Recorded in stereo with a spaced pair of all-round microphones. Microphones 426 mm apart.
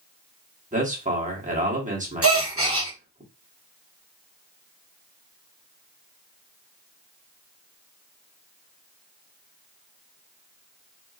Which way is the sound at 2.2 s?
30° right (ahead or behind).